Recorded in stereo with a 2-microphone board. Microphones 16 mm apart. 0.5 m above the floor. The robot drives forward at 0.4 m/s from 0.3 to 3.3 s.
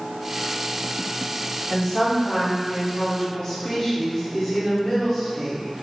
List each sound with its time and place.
1.7 s a woman speaking: 35° left (ahead or behind), 1.3 m